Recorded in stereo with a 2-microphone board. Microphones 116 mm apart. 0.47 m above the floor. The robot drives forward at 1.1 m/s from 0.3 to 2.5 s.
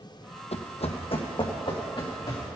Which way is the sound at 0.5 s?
70° left (ahead or behind).